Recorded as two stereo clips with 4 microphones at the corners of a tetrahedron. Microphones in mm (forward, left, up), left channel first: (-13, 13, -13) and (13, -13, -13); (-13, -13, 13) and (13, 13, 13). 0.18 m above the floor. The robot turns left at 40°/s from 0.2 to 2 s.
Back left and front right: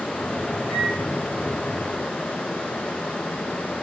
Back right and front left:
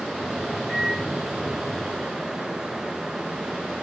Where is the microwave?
10° left, 1.1 m; by 1.0 s 5° right, 1.1 m.